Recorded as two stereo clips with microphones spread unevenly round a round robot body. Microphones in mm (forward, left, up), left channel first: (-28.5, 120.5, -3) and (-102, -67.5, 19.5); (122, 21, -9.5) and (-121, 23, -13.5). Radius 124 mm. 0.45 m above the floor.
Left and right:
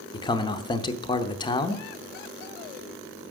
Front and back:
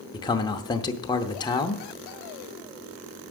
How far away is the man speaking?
About 0.7 m.